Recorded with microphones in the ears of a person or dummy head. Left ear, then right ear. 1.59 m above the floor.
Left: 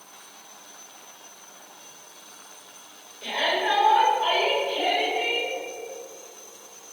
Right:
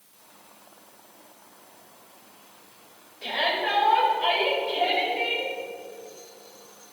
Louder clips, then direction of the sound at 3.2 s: Left 1 dB; 15° right (ahead or behind).